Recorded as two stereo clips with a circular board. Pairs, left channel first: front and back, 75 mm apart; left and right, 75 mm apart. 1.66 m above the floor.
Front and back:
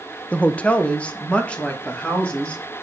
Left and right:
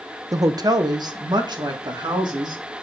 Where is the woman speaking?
70° right, 0.7 m; by 2.8 s 75° right, 3 m.